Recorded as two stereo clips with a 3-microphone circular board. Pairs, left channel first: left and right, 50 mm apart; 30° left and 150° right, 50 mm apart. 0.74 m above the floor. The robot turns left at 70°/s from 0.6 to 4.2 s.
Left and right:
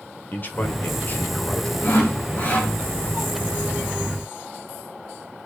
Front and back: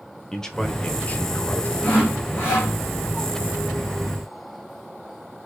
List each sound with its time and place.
0.3 s a man speaking: 100° left, 0.7 m; by 1.7 s 25° left, 0.7 m
1.8 s sawing: 90° left, 2.5 m; by 2.7 s 25° left, 2.5 m